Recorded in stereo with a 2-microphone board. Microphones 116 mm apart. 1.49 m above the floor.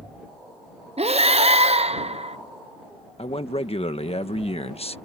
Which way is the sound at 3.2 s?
60° left (ahead or behind).